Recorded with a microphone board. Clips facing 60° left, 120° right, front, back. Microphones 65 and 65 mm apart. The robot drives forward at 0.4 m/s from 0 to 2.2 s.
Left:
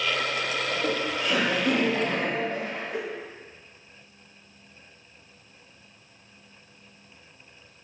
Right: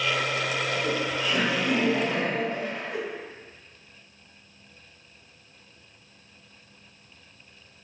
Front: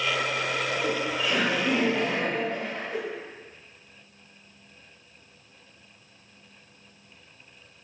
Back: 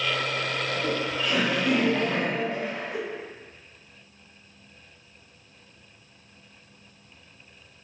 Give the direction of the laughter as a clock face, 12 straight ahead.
10 o'clock.